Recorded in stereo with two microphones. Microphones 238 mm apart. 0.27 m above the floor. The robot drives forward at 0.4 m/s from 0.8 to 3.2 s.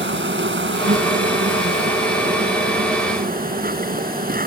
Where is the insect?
55° right (ahead or behind); by 4.5 s 40° right (ahead or behind).